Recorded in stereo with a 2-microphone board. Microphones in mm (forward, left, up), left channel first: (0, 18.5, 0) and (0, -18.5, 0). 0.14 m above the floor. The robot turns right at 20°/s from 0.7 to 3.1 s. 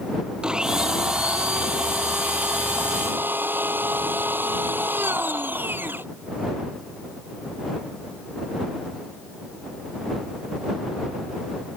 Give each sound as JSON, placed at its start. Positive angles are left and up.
{"t": 0.4, "sound": "a blender", "azimuth_deg": -155}